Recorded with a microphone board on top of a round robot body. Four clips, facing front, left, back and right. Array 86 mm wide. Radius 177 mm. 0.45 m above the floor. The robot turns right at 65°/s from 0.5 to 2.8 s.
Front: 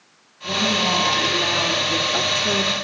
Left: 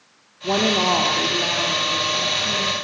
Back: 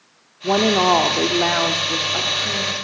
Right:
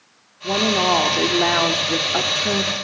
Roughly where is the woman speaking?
Behind.